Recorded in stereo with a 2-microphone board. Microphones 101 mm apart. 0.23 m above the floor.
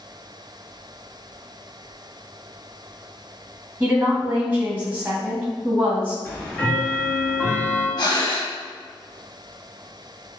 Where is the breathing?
45° left (ahead or behind), 0.5 m.